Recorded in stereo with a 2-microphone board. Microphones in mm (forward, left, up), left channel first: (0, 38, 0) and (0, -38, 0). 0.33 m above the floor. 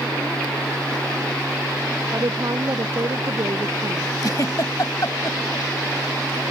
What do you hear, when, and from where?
2.1 s a woman speaking: 50° right (ahead or behind)
4.2 s a giggle: 55° left (ahead or behind)